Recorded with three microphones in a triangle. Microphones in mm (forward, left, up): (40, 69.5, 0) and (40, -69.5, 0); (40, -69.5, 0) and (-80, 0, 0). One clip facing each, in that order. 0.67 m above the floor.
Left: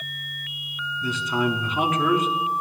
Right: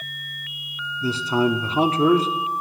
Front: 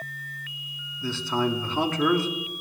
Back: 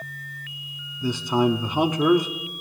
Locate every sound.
1.0 s a man speaking: 140° right, 0.9 m